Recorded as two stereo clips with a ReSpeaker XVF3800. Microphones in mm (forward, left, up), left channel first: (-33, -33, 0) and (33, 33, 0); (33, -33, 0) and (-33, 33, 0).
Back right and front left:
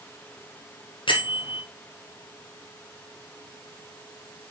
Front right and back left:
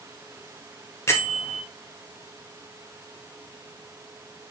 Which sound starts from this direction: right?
A bell, at 1.1 s.